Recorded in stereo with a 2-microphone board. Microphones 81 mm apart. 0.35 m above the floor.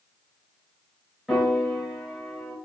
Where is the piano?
Centre (ahead or behind), 1.1 m.